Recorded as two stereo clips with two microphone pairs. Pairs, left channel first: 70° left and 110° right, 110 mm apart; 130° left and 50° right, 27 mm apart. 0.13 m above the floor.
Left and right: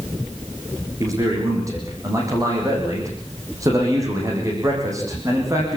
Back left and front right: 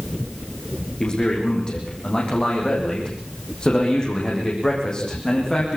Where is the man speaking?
170° right, 8 m.